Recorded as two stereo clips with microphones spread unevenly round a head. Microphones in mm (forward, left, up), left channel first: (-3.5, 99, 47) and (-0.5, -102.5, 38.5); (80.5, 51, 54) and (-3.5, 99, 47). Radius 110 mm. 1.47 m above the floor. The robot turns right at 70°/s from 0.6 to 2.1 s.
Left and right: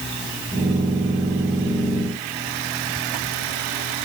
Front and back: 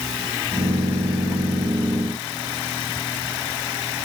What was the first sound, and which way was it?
Only background noise.